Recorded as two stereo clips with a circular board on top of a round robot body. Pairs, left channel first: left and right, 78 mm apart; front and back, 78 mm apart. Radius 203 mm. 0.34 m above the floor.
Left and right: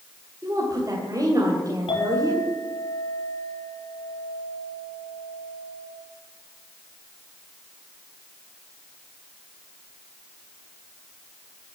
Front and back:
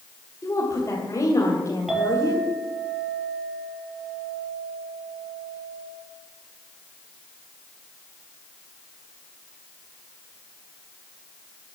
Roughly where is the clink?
Left.